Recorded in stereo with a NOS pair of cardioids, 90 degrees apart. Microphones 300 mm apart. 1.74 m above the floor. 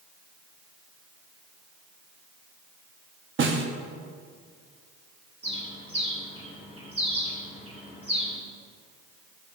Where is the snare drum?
40° right, 1.0 m.